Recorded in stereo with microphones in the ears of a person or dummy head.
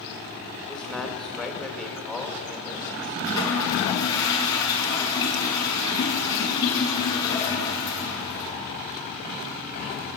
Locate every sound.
0.7 s a man speaking: 5° right (ahead or behind), 3 m
3.2 s a toilet flushing: 20° left (ahead or behind), 6 m